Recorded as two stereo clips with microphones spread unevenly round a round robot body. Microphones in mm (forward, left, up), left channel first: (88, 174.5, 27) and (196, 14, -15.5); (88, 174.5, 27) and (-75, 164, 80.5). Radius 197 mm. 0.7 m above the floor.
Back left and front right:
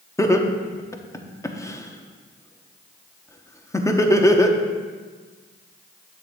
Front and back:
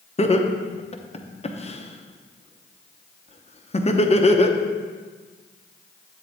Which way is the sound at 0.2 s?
45° left.